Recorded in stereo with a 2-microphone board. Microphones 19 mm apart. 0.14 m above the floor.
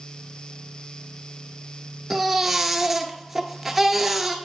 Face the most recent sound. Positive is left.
turn(degrees=-5)  # may be behind; listen again after turning